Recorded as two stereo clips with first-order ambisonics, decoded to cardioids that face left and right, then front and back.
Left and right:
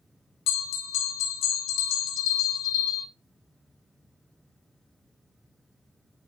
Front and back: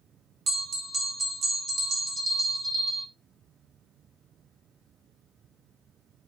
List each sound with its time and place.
0.5 s a bell: 115° left, 0.9 m